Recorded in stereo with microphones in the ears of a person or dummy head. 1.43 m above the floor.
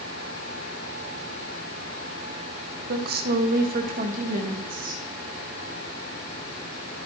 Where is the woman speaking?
50° right (ahead or behind), 1.3 m; by 5.0 s 40° right (ahead or behind), 2.5 m.